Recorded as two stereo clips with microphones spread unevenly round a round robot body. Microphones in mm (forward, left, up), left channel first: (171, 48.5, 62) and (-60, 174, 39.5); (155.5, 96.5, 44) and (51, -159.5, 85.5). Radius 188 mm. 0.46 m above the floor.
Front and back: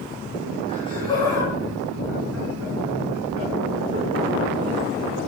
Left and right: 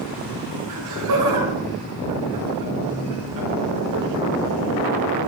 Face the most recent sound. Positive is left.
turn(degrees=-140)